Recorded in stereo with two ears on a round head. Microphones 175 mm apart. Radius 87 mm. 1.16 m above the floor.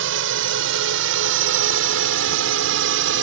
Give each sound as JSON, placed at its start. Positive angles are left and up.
{"t": 0.0, "sound": "a drone", "side_deg": -70}